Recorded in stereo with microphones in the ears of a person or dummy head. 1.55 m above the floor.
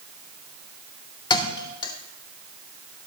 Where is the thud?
25° left (ahead or behind), 1.8 m.